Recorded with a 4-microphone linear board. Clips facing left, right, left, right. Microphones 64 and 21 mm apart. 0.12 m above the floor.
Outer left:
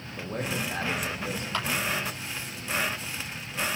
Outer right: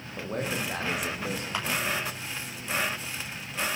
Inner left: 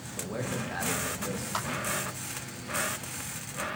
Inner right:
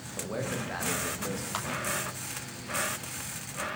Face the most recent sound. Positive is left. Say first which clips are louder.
# outer left 3 dB, inner left 3 dB
turn(degrees=-15)  # may be behind; listen again after turning